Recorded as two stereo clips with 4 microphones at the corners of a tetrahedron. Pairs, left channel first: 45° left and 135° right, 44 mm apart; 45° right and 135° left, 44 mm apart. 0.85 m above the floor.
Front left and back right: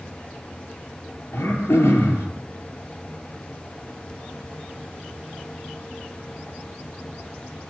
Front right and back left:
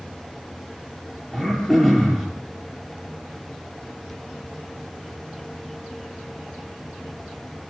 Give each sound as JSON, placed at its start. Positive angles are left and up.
{"t": 1.3, "sound": "throat clearing", "azimuth_deg": 35, "distance_m": 6.5}